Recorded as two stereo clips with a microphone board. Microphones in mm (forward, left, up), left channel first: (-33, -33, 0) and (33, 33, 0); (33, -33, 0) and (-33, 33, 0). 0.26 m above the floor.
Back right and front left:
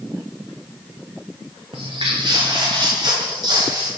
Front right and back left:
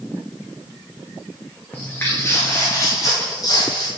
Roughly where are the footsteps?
Ahead left.